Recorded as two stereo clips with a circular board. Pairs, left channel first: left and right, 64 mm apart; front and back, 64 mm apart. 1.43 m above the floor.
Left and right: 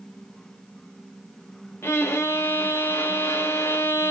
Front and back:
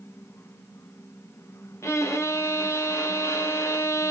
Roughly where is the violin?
Ahead left.